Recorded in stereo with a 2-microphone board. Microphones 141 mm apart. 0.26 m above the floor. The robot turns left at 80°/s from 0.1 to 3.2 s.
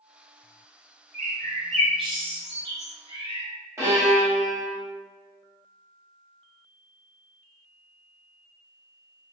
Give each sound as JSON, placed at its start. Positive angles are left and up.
{"t": 1.1, "sound": "a bird", "side_deg": -55, "distance_m": 0.7}
{"t": 3.8, "sound": "a violin", "side_deg": -20, "distance_m": 1.7}